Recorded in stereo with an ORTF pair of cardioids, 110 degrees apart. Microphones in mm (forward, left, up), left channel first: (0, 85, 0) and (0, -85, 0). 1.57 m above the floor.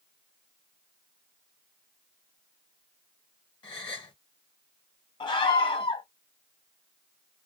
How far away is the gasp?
About 1.1 m.